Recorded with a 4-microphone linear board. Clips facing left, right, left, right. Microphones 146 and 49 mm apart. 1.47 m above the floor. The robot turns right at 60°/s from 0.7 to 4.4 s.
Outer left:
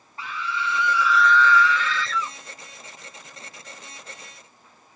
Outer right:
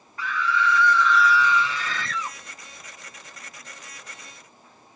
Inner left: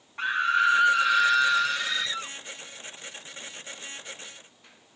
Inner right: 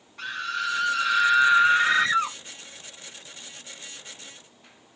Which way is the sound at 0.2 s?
150° left.